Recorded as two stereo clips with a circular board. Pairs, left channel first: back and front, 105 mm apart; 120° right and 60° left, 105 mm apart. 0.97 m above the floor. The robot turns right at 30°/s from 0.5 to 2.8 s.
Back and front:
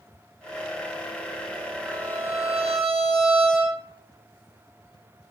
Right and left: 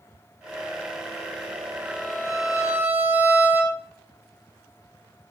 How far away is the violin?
About 7.5 m.